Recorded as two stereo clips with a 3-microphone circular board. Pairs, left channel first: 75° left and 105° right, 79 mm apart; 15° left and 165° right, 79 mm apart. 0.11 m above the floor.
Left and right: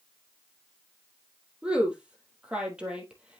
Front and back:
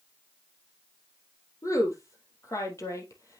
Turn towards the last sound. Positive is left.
turn(degrees=-30)